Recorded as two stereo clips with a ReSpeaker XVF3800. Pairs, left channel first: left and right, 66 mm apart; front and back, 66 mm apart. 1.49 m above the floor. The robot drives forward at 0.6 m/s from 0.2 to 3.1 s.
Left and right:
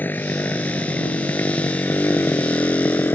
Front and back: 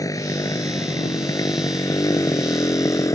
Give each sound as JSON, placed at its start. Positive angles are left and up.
{"t": 0.0, "sound": "a motorcycle", "azimuth_deg": 30}